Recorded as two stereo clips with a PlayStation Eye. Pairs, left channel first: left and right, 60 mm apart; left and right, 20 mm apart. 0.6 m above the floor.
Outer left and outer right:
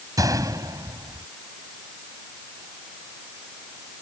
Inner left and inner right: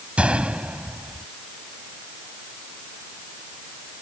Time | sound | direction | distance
0.2 | a gunshot | 75° right (ahead or behind) | ?